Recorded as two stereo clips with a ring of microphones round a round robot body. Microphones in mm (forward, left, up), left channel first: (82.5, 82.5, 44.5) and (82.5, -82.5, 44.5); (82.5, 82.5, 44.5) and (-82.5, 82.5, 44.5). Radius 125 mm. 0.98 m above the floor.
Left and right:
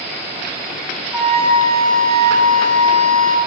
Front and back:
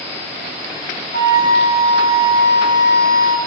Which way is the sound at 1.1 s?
5° left.